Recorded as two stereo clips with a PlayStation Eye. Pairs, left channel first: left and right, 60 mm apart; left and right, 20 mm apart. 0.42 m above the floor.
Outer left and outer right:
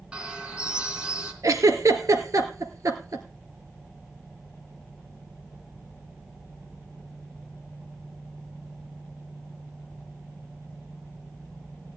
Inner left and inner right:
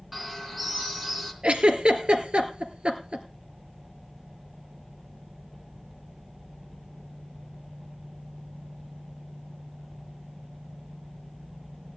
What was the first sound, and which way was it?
A bird, 15° right (ahead or behind).